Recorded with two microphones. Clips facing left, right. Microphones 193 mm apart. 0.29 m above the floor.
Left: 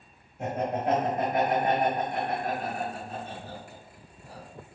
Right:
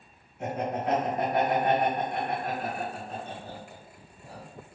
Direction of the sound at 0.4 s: 40° left (ahead or behind).